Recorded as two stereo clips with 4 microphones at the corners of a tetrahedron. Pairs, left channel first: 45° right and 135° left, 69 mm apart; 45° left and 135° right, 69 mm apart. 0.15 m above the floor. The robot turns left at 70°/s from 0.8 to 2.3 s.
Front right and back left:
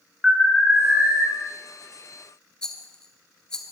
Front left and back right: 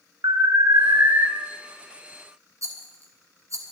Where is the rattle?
120° right, 2 m.